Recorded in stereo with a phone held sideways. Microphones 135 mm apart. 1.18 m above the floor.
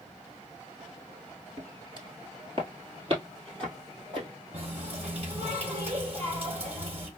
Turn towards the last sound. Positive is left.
turn(degrees=-45)  # may be behind; listen again after turning